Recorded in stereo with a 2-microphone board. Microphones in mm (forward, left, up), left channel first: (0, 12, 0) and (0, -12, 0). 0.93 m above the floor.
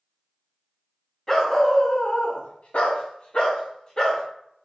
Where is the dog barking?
20° left (ahead or behind), 0.9 m; by 4.2 s 30° left (ahead or behind), 1.3 m.